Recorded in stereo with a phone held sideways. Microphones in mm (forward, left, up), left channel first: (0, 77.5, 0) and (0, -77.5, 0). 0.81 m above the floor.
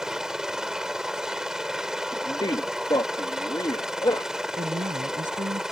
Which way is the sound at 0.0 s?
5° right (ahead or behind).